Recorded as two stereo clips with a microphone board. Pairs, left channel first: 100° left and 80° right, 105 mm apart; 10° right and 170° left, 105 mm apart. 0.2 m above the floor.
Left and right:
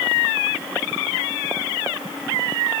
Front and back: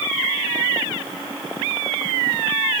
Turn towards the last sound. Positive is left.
No sound to turn to.